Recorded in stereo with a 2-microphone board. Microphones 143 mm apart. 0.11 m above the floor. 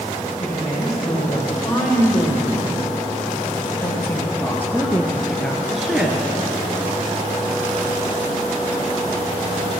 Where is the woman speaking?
25° left (ahead or behind), 5 m; by 6.3 s 10° right (ahead or behind), 1.5 m.